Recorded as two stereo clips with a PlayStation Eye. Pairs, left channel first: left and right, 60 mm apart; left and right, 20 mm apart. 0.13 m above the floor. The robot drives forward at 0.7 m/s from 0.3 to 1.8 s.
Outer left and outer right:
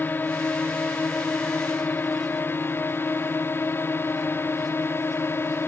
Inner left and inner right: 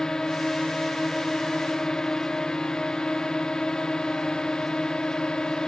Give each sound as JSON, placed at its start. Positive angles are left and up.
{"t": 0.0, "sound": "a drone", "side_deg": 30}